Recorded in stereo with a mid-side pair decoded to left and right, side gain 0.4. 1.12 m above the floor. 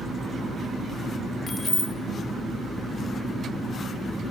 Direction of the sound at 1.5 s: 30° left.